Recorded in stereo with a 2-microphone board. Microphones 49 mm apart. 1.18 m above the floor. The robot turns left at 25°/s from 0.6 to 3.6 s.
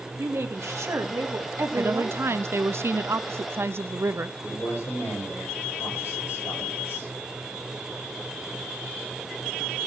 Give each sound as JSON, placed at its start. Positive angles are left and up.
{"t": 0.2, "sound": "a woman speaking", "azimuth_deg": -90, "distance_m": 1.7}
{"t": 1.8, "sound": "a woman speaking", "azimuth_deg": -65, "distance_m": 0.7}
{"t": 4.4, "sound": "a man speaking", "side_deg": 85, "distance_m": 5.5}